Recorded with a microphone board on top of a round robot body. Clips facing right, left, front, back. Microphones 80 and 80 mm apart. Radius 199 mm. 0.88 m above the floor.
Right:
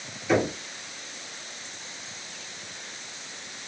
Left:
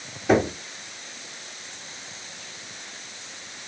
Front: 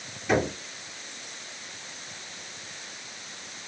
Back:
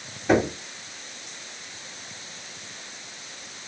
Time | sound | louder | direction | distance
0.3 | knocking | left 3 dB, back 4 dB | 120° left | 1.6 m